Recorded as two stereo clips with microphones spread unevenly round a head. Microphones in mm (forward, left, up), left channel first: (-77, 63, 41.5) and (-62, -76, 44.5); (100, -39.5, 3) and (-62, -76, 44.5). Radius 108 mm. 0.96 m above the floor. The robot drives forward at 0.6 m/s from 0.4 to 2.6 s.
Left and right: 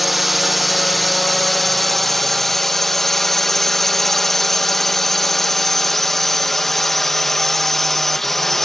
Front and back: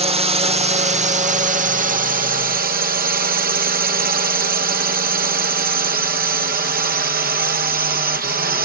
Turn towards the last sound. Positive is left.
turn(degrees=180)